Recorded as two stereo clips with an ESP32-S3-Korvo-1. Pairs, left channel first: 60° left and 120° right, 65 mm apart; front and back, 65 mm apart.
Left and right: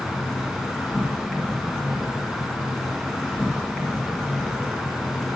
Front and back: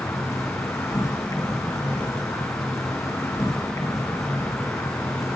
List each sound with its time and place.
0.0 s an insect: 25° right, 2 m